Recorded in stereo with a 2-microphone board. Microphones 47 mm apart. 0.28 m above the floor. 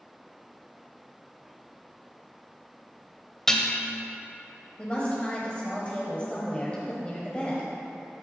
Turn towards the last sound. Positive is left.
turn(degrees=25)  # may be behind; listen again after turning